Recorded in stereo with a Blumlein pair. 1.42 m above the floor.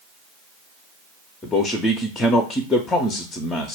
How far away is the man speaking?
About 0.5 m.